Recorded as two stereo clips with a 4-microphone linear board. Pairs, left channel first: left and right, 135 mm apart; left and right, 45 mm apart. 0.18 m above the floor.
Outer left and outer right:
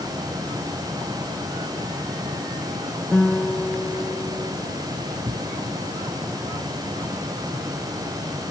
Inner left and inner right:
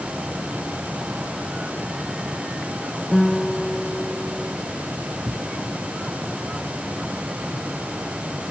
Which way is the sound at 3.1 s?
10° left (ahead or behind).